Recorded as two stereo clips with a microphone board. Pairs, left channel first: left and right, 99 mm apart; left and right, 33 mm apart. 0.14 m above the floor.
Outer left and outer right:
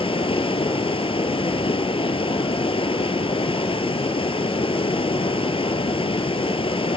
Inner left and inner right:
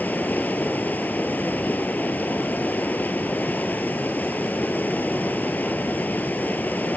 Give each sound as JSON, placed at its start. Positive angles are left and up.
{"t": 0.0, "sound": "running water", "side_deg": 70, "distance_m": 1.1}